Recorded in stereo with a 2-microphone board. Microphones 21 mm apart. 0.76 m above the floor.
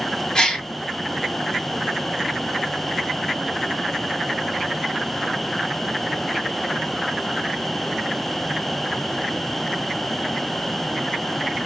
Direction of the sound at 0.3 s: 35° left (ahead or behind).